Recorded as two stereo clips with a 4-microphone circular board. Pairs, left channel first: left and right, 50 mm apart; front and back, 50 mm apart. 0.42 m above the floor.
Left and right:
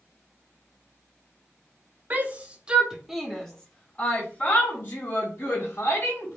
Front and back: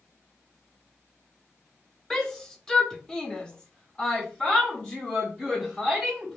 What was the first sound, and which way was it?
A shout, 75° right.